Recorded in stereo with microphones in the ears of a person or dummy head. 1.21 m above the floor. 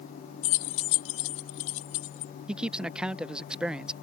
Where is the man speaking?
5° right (ahead or behind).